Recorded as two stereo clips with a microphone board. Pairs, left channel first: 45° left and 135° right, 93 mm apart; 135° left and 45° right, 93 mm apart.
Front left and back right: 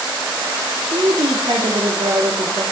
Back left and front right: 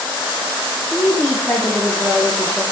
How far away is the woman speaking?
About 1.2 m.